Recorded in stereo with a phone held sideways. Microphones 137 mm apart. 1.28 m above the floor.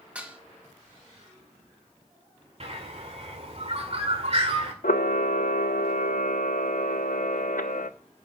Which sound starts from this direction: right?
A bird, at 2.6 s.